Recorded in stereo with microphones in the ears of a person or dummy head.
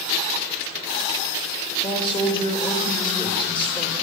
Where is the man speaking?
25° left (ahead or behind), 2 m.